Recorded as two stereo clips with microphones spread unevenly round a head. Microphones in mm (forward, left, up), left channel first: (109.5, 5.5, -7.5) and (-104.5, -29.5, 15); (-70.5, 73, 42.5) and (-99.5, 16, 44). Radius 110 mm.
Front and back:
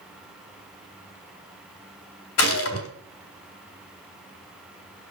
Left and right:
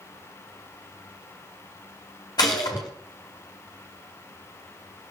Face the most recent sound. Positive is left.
turn(degrees=20)